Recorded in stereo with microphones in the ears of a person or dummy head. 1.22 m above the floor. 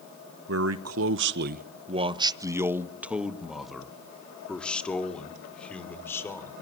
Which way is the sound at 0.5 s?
65° right (ahead or behind).